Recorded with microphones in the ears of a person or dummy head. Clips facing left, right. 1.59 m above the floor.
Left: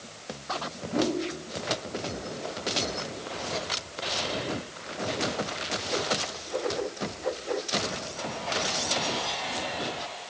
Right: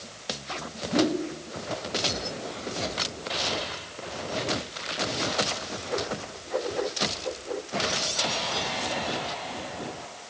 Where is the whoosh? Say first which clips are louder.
Right 3 dB; 15° right (ahead or behind), 1.2 m.